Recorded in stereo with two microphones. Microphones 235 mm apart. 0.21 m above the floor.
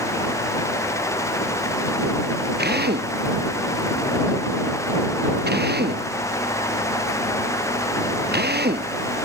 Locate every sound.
2.6 s a drill: 45° right (ahead or behind)